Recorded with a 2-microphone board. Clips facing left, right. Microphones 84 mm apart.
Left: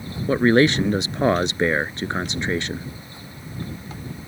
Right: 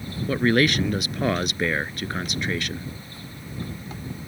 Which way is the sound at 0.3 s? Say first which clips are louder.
Left 4 dB; 30° left (ahead or behind).